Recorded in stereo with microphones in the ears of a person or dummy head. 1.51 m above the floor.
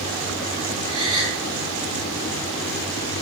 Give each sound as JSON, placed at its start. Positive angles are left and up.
{"t": 0.9, "sound": "a gasp", "side_deg": -30, "distance_m": 2.5}